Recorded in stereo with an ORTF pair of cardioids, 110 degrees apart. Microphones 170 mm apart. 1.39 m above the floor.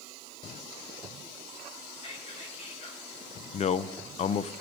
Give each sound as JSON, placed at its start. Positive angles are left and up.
{"t": 1.9, "sound": "whispering", "azimuth_deg": 35, "distance_m": 6.0}
{"t": 3.5, "sound": "a man speaking", "azimuth_deg": 40, "distance_m": 0.7}